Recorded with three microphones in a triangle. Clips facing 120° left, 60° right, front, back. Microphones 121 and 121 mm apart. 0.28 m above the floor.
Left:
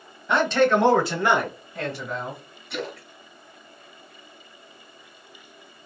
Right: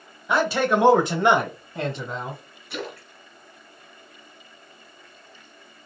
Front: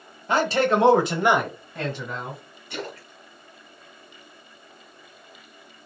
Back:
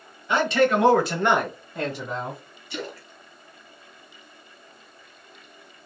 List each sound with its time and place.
0.3 s a man speaking: 25° left, 1.4 m; by 2.4 s 120° right, 1.7 m
2.7 s a splash: 25° left, 1.4 m